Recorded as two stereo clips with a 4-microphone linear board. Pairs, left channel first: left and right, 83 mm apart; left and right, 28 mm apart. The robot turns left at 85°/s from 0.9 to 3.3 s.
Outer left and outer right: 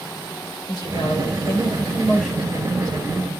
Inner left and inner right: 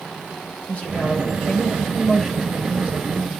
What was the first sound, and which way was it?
A woman speaking, 115° left.